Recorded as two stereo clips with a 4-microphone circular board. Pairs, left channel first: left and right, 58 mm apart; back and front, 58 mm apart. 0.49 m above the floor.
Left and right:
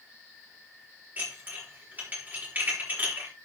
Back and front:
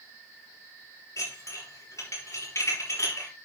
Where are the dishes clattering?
150° right, 6 m.